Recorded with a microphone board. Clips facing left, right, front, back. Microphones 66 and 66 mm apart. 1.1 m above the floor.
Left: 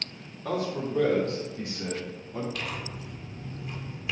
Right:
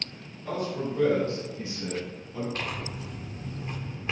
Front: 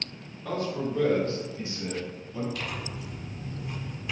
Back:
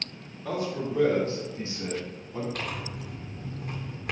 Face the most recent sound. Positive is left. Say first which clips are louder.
# right 1 dB, back 1 dB
turn(degrees=-145)